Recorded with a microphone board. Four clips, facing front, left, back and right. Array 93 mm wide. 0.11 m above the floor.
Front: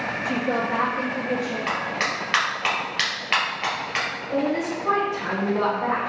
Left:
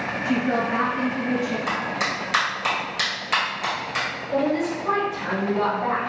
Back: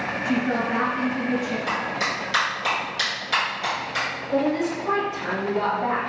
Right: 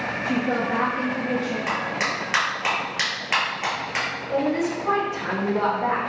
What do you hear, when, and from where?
0.2 s a woman speaking: 140° left, 1.6 m
1.7 s a clap: 25° right, 1.9 m
4.3 s a woman speaking: 60° right, 1.4 m